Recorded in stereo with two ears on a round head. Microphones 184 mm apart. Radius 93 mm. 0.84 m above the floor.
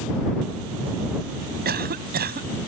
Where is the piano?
No piano in this recording.